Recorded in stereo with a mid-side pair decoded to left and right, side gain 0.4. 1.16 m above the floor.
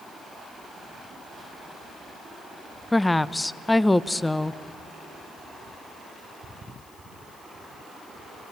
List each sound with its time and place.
2.9 s a woman speaking: 15° left, 0.7 m